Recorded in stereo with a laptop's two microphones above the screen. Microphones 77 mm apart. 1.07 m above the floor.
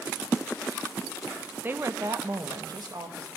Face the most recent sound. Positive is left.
turn(degrees=-70)  # may be behind; listen again after turning